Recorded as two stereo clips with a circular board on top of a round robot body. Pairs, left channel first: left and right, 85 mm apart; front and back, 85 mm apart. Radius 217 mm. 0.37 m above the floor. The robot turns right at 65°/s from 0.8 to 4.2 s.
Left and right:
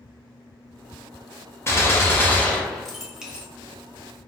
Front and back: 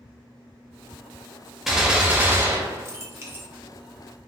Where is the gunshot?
95° left, 1.1 m; by 3.5 s 150° right, 1.1 m.